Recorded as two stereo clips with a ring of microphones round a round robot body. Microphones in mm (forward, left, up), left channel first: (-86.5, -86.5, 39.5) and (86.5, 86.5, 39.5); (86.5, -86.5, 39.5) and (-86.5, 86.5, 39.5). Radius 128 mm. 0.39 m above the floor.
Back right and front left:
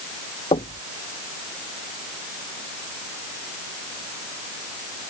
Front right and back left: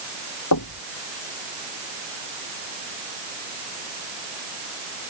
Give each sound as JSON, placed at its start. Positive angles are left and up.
{"t": 0.5, "sound": "knocking", "azimuth_deg": -65}